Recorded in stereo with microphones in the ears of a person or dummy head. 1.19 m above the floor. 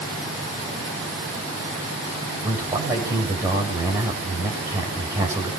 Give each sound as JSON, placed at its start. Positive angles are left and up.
{"t": 2.4, "sound": "a man speaking", "side_deg": -15, "distance_m": 6.0}